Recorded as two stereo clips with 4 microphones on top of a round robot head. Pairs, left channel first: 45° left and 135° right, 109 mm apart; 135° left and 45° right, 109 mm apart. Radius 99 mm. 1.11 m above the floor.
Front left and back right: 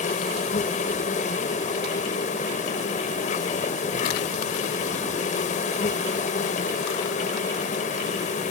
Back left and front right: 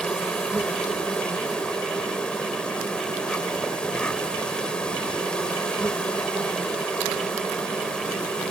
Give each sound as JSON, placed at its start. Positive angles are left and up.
{"t": 0.0, "sound": "an insect", "azimuth_deg": 50}